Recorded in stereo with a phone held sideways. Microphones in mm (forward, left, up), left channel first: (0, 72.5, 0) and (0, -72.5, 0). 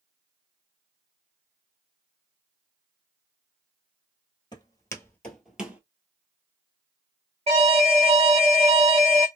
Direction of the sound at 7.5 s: 40° right (ahead or behind).